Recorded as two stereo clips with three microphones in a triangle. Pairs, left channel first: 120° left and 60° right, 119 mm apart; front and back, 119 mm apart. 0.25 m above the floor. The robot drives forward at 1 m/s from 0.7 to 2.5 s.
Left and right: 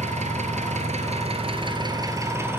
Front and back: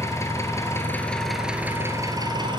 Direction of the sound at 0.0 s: 65° right.